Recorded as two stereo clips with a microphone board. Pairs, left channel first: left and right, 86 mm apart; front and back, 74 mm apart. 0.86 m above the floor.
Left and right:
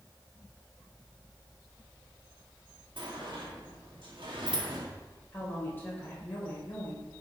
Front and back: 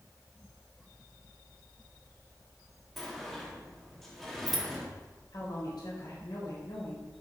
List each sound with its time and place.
3.0 s a sliding door: 90° right, 2.0 m
5.3 s a woman speaking: 25° left, 3.5 m